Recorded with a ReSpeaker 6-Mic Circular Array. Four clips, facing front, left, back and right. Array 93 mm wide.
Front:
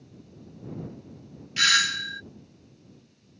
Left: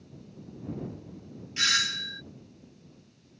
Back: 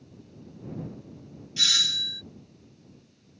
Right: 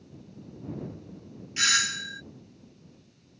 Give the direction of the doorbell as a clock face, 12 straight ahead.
12 o'clock.